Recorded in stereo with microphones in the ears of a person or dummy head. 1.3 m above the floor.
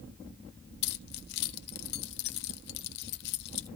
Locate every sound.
0.8 s keys jangling: 60° left (ahead or behind), 0.9 m